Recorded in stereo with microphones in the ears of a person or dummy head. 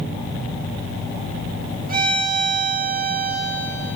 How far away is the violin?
About 8 m.